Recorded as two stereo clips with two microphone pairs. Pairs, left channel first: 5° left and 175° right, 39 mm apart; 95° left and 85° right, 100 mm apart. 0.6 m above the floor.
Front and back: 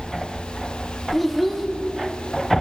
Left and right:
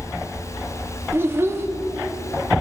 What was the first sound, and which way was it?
A child speaking, 80° right.